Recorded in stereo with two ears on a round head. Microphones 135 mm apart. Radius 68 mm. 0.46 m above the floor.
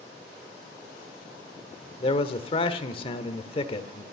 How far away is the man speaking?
About 1.4 m.